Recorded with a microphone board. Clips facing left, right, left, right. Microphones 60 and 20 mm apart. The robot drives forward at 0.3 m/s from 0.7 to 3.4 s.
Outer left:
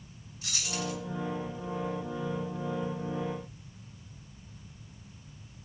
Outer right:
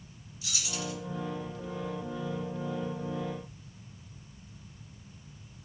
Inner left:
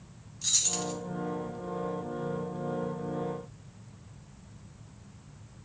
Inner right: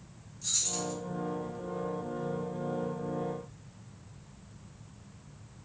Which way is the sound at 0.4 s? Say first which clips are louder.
Outer left 2 dB, inner left 3 dB; 50° left (ahead or behind).